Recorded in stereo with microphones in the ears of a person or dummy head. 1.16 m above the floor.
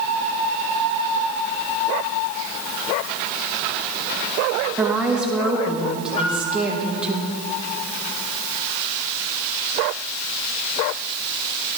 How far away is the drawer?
I don't hear a drawer.